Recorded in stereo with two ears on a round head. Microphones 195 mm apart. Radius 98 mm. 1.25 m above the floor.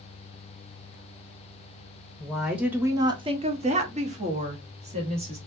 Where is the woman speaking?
5° left (ahead or behind), 0.7 m; by 5.4 s 30° right (ahead or behind), 1.4 m.